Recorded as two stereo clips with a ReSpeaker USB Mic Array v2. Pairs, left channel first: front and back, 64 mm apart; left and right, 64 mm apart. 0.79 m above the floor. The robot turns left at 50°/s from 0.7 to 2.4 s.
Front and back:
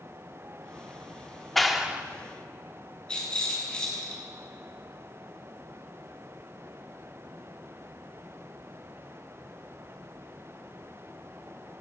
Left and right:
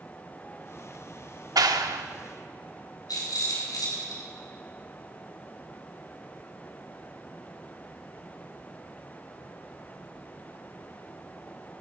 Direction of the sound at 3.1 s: 75° left.